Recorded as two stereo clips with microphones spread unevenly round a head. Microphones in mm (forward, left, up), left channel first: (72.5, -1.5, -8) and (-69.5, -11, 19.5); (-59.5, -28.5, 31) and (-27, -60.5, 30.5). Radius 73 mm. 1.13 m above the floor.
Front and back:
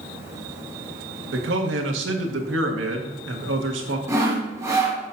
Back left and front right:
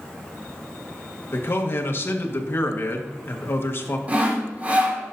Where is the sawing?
100° right, 3 m.